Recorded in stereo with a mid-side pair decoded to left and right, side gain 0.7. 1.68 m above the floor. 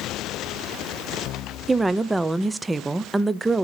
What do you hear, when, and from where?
1.7 s a woman speaking: 15° right, 0.7 m